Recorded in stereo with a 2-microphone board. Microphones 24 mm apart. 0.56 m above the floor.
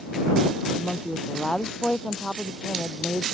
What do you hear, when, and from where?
0.8 s a woman speaking: 20° left (ahead or behind); by 3.2 s 15° left (ahead or behind)